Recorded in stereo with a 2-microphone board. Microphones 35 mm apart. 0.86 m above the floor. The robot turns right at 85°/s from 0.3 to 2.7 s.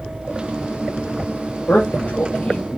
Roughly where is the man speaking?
Left.